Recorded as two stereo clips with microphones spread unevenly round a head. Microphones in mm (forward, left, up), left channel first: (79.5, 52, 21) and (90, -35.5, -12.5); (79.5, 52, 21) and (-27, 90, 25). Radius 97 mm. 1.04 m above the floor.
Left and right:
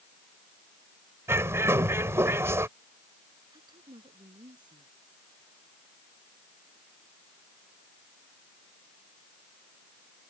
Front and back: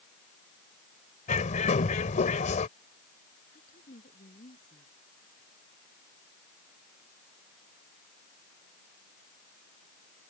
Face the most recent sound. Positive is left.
turn(degrees=-45)